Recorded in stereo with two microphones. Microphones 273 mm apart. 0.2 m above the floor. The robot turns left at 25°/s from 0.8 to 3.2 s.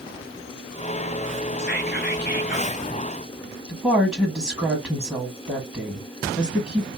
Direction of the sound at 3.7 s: 5° right (ahead or behind).